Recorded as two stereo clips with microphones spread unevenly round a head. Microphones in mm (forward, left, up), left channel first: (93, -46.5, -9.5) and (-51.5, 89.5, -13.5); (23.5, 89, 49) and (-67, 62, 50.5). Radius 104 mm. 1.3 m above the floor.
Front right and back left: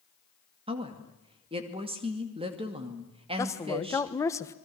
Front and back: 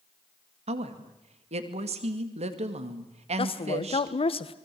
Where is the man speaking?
35° left, 1.2 m.